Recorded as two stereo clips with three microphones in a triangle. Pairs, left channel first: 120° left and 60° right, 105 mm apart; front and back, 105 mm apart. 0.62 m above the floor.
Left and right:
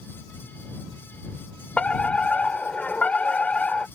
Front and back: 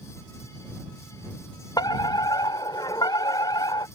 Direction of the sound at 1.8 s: 40° left.